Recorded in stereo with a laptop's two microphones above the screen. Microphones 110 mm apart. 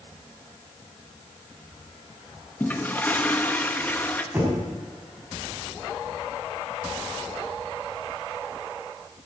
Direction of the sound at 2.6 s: 15° left (ahead or behind).